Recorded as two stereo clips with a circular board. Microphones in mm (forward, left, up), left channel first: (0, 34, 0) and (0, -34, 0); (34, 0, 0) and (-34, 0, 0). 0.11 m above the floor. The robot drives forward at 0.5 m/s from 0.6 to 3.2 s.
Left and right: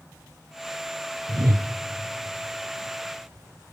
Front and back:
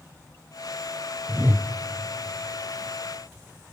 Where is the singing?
No singing in this recording.